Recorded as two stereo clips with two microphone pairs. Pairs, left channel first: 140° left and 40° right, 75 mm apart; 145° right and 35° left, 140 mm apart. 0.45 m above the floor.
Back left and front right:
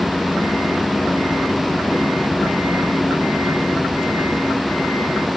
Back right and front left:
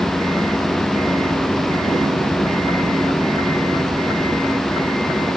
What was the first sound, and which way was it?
Only background noise.